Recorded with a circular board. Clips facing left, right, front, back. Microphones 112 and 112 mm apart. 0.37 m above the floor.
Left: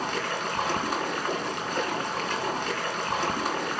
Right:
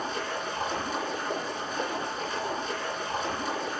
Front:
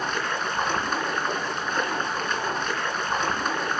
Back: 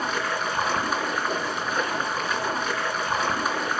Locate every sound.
0.0 s running water: 95° left, 3.5 m